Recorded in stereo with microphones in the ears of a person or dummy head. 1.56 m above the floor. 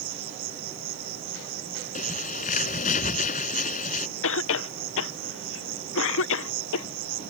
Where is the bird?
35° left (ahead or behind).